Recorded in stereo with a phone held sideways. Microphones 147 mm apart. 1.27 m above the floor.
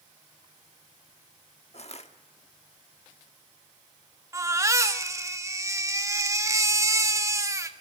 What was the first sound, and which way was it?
Crushing, 50° left (ahead or behind).